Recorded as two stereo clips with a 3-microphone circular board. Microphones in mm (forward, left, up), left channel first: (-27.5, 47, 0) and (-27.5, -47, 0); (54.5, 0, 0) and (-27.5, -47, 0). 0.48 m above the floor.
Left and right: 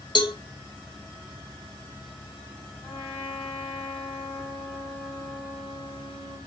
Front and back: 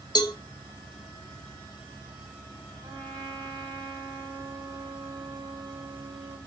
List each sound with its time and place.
0.1 s a cowbell: 65° left, 0.5 m
2.8 s a trumpet: 165° left, 2.5 m